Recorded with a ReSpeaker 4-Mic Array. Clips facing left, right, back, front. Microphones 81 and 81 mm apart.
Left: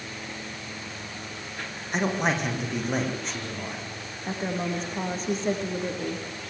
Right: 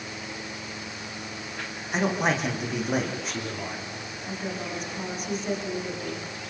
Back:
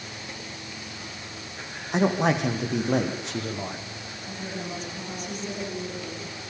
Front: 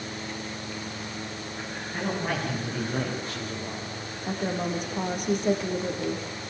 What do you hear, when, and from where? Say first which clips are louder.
1.9 s a man speaking: right 1 dB, back 8 dB; straight behind, 6 m; by 3.8 s 175° right, 8 m
4.3 s a woman speaking: left 5 dB, front 7 dB; 30° left, 6 m